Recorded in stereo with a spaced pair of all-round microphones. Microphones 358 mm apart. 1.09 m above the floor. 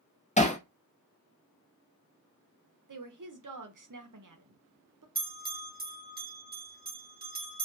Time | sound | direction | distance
0.4 | hammering | 20° left (ahead or behind) | 0.5 m
2.9 | a woman speaking | 60° right (ahead or behind) | 0.6 m
5.2 | a bell | 25° right (ahead or behind) | 0.9 m